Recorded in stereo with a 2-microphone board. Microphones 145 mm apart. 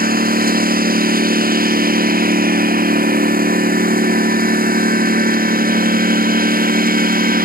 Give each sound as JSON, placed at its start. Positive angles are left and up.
{"t": 0.0, "sound": "a lawn mower", "side_deg": -90}